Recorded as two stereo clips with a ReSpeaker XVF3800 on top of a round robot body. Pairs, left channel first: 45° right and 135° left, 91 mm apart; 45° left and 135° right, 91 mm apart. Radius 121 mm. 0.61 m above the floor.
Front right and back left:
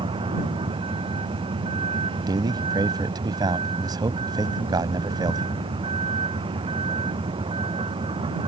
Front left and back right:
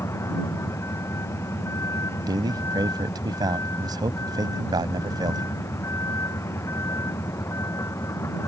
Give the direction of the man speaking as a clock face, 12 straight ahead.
6 o'clock.